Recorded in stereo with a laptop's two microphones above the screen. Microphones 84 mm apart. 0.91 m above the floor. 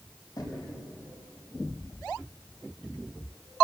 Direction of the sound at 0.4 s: 50° left (ahead or behind).